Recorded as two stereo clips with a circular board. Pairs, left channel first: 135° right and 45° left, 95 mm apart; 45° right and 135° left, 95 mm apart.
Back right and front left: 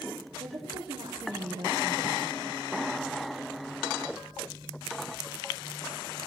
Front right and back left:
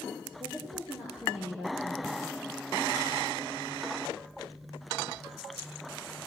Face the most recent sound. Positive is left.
turn(degrees=50)